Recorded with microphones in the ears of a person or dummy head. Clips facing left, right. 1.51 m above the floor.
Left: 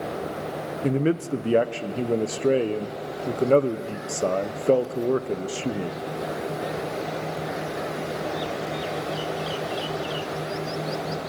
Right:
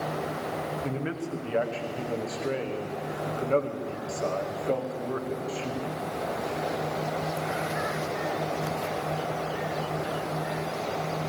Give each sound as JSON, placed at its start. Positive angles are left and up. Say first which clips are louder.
{"t": 0.8, "sound": "a man speaking", "louder": "left 9 dB", "side_deg": 45, "distance_m": 0.9}